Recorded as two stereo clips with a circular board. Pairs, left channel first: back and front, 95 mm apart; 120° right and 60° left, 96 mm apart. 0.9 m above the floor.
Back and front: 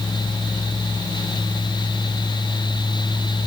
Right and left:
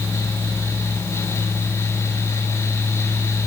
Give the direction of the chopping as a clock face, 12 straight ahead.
I don't hear chopping.